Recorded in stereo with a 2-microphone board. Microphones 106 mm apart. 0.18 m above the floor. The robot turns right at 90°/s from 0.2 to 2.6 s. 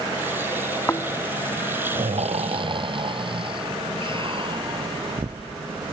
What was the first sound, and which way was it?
Snoring, 25° left (ahead or behind).